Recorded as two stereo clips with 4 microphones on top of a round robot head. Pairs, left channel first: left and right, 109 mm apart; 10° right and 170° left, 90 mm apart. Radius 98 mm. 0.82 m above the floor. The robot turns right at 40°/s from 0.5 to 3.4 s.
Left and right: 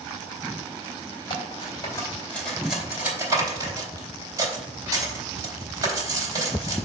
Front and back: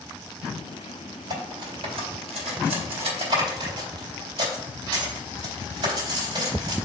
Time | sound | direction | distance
1.3 | cutlery clinking | 125° left | 3.5 m